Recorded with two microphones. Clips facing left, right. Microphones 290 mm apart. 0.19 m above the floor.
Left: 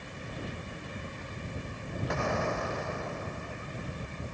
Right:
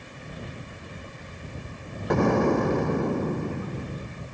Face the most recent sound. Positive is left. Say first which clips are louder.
# right 13 dB
turn(degrees=-70)  # may be behind; listen again after turning